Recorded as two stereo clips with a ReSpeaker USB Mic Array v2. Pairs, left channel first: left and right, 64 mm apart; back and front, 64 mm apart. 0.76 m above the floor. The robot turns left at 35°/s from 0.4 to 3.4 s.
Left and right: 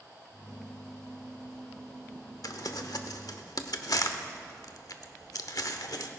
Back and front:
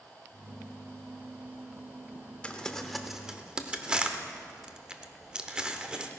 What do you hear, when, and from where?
2.4 s crumpling: 110° left, 0.8 m; by 6.1 s 75° left, 0.8 m